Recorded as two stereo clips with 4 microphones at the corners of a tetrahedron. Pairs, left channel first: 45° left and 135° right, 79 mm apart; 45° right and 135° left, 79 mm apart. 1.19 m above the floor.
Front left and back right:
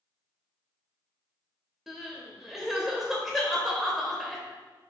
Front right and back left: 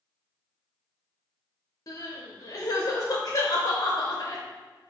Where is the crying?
45° right, 0.8 m.